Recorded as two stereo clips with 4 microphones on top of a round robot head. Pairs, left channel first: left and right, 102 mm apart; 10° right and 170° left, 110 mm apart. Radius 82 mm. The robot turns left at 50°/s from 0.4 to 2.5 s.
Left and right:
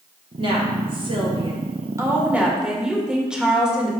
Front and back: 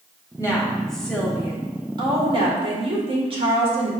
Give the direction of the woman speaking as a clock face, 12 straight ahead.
2 o'clock.